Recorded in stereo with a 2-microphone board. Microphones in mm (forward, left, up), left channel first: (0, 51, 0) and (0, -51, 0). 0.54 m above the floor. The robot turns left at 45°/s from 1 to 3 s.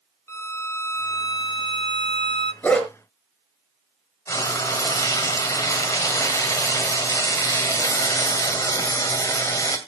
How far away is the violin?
About 0.7 m.